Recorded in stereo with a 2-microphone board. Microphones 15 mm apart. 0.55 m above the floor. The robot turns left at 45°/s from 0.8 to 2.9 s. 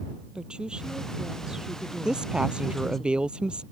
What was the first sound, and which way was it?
A woman speaking, 105° right.